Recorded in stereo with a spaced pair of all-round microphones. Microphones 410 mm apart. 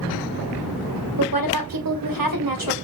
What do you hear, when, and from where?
1.2 s a woman speaking: 55° right (ahead or behind), 0.8 m